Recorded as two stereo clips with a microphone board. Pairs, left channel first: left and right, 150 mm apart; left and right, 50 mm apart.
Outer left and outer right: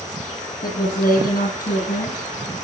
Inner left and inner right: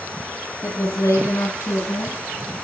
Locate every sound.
0.6 s a woman speaking: 75° left (ahead or behind), 9 m